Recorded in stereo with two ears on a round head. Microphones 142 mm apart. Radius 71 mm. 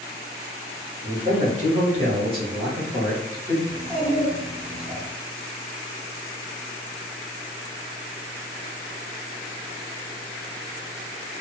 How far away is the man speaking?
About 1.2 m.